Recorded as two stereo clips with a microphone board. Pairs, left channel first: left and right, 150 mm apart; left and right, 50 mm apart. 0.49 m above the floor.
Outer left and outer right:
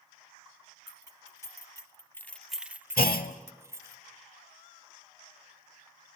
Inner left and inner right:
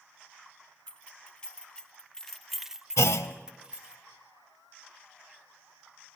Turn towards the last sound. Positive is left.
turn(degrees=85)